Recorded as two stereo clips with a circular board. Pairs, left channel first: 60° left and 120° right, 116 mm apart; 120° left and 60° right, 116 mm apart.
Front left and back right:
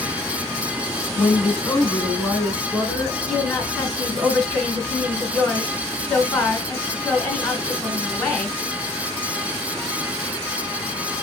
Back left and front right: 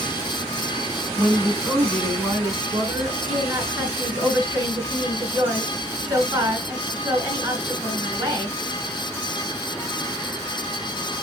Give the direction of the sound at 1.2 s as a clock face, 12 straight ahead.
1 o'clock.